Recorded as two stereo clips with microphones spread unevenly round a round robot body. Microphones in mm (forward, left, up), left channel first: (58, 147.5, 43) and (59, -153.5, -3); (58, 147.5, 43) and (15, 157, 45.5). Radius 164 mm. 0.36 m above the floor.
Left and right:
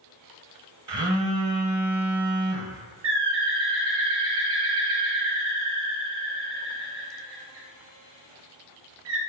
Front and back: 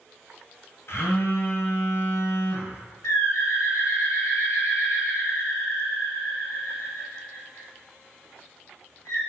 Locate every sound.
0.9 s a phone buzzing: 20° right, 1.0 m
3.0 s a bird: 40° right, 1.3 m